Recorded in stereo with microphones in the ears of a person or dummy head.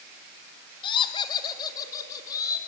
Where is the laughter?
25° left (ahead or behind), 1.9 m; by 2.6 s 15° left (ahead or behind), 4.5 m.